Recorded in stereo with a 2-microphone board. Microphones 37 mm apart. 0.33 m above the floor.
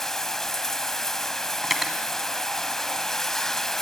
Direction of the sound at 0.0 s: 10° left (ahead or behind).